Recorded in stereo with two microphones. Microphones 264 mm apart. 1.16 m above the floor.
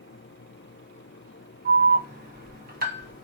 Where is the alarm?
35° right (ahead or behind), 1.0 m.